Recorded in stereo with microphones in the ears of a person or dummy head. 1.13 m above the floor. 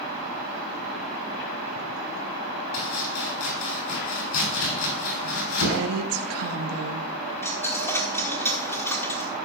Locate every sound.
2.7 s chopping: 85° left, 4 m
5.7 s a woman speaking: 75° right (ahead or behind), 1.5 m
7.4 s a dropped coin: 10° left (ahead or behind), 1.2 m